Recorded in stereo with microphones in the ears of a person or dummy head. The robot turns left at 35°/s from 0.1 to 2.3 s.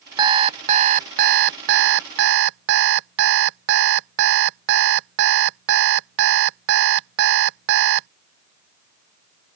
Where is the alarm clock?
30° right; by 8.1 s 100° right.